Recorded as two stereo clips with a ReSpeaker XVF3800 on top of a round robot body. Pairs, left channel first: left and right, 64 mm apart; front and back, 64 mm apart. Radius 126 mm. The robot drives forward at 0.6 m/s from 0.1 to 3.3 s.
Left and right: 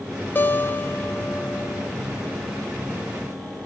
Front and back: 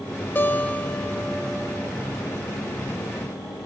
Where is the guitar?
40° left, 1.2 m; by 1.9 s 115° left, 1.0 m.